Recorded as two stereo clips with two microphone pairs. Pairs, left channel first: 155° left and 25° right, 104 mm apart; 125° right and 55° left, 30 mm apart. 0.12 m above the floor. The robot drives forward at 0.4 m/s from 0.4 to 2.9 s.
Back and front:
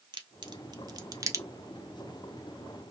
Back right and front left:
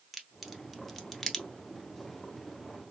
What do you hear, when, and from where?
0.1 s a crack: 25° right, 1.0 m; by 1.4 s 50° right, 0.8 m